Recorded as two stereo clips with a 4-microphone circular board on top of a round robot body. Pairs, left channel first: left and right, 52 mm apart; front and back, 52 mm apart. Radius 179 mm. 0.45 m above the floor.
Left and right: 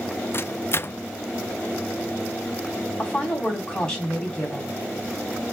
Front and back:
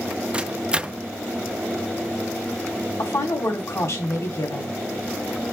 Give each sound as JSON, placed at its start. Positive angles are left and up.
{"t": 0.3, "sound": "a microwave", "azimuth_deg": 110, "distance_m": 0.6}
{"t": 3.0, "sound": "a woman speaking", "azimuth_deg": 15, "distance_m": 3.5}